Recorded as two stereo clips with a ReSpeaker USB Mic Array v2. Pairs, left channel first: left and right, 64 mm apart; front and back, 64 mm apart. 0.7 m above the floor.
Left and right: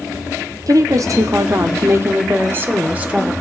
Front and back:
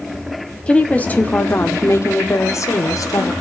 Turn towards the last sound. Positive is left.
turn(degrees=-20)